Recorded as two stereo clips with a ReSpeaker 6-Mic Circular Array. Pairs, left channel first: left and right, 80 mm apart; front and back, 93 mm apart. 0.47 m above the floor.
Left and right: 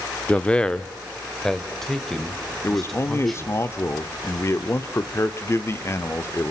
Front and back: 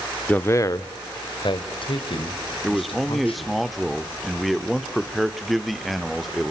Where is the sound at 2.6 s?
90° left, 1.1 m.